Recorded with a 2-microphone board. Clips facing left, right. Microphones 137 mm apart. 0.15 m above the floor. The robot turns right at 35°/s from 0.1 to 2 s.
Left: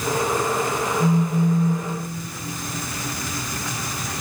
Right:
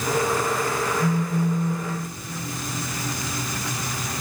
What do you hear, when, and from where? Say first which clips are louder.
1.0 s a phone buzzing: left 3 dB; 90° left, 1.6 m; by 1.9 s 120° left, 1.6 m